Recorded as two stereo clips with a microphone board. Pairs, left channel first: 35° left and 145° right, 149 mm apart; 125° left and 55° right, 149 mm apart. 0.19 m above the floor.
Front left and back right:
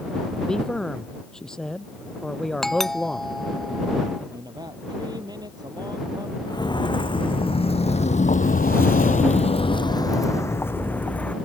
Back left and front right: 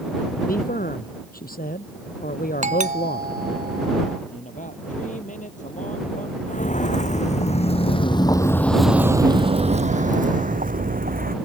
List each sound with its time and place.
0.5 s a man speaking: 120° left
2.6 s a doorbell: 55° right
4.3 s a man speaking: 155° left
6.5 s footsteps: 95° left; by 11.3 s 45° right